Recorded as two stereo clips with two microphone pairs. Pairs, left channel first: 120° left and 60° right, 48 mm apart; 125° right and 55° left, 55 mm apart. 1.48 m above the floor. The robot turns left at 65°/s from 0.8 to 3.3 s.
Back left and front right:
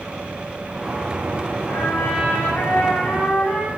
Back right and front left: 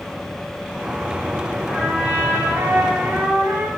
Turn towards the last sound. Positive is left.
turn(degrees=35)